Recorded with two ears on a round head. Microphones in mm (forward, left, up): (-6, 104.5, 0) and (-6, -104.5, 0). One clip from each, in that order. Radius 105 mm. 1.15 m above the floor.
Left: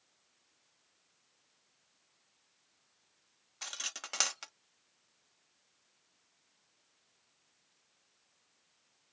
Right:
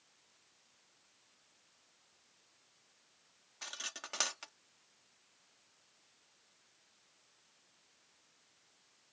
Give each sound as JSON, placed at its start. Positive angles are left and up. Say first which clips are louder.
{"t": 3.6, "sound": "cutlery clinking", "louder": "left 3 dB", "side_deg": 30}